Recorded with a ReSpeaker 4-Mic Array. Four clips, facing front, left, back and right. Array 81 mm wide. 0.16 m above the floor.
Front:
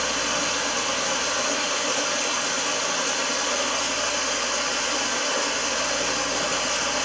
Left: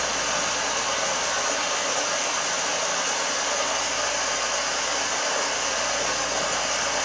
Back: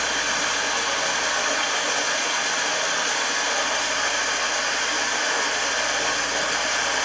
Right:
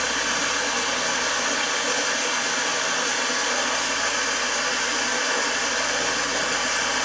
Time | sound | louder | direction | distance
0.0 | running water | right 1 dB, back 1 dB | 140° right | 1.9 m